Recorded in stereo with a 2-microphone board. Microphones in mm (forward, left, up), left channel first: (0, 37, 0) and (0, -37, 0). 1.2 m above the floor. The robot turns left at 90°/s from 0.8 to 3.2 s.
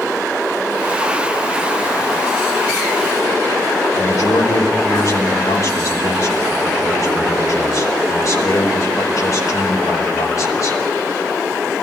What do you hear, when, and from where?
4.0 s a man speaking: 55° left (ahead or behind), 5 m